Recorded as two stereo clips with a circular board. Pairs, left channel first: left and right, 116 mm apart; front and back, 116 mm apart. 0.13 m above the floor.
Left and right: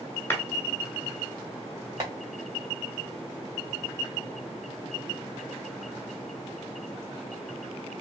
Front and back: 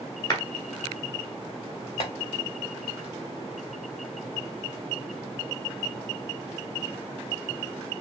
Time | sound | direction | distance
0.3 | a clap | 30° left | 1.2 m
2.0 | tapping | 35° right | 1.4 m